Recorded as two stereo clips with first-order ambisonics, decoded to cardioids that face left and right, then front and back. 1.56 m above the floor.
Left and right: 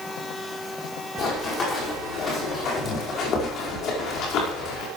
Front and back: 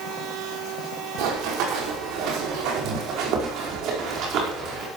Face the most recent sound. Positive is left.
turn(degrees=130)